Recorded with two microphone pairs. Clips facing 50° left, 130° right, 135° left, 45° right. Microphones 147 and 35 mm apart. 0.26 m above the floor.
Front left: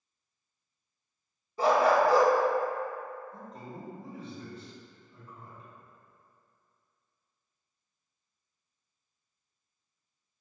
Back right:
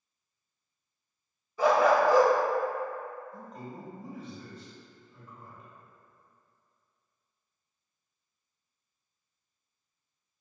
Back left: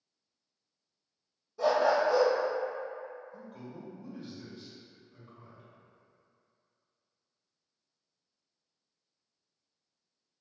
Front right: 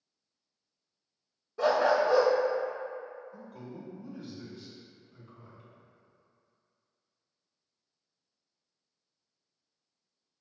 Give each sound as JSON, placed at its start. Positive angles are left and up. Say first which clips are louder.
{"t": 1.6, "sound": "a dog barking", "louder": "back right 1 dB, front right 1 dB", "azimuth_deg": -5, "distance_m": 0.6}
{"t": 3.3, "sound": "a man speaking", "louder": "back right 1 dB, front right 1 dB", "azimuth_deg": 75, "distance_m": 1.8}